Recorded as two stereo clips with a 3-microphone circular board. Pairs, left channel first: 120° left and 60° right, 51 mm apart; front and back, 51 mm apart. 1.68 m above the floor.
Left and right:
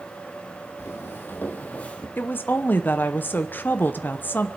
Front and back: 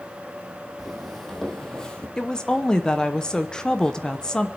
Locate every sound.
0.8 s footsteps: 90° left, 3.5 m; by 2.1 s 60° left, 2 m
2.2 s a woman speaking: 75° left, 0.9 m